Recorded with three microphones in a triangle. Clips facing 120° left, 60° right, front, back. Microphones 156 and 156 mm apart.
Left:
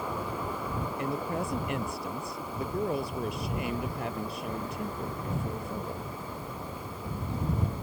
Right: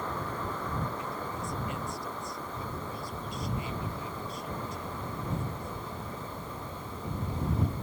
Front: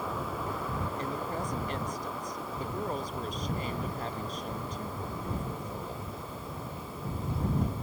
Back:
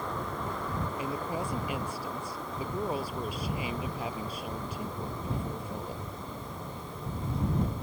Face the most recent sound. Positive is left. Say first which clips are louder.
# left 5 dB, back 1 dB
turn(degrees=100)